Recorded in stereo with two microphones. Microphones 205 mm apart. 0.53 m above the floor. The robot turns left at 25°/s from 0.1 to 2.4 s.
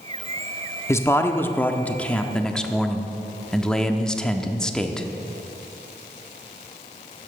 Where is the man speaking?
15° left (ahead or behind), 0.6 m; by 5.1 s 5° left (ahead or behind), 0.6 m.